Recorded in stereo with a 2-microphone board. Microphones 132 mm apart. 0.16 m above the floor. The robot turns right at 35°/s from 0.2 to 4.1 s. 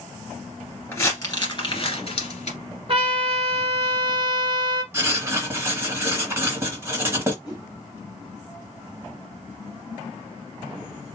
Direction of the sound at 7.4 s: 25° left (ahead or behind).